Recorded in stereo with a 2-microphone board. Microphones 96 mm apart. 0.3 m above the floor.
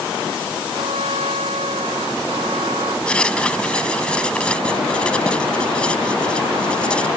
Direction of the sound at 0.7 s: 85° right.